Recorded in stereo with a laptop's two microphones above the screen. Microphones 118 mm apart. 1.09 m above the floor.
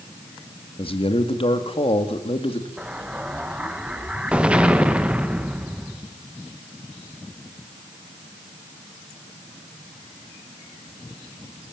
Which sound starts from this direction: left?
A man speaking, at 0.8 s.